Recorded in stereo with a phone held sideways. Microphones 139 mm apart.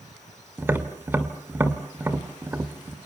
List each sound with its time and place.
0.6 s tapping: 15° right (ahead or behind), 2.5 m